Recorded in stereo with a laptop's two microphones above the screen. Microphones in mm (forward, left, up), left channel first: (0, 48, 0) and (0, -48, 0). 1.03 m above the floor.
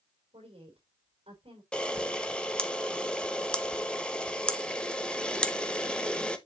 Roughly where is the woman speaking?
Right.